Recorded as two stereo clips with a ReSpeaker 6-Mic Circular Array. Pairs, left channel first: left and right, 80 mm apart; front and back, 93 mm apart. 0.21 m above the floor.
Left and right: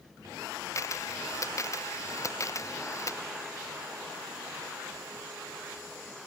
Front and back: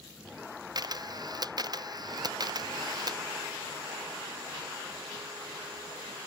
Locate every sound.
0.8 s a camera shutter: 140° left